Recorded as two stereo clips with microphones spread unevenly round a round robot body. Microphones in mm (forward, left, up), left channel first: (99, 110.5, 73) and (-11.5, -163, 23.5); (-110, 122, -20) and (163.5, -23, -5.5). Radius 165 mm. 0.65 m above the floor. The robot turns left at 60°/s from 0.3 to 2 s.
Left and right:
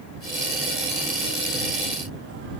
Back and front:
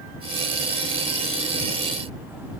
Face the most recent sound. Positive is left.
No sound to turn to.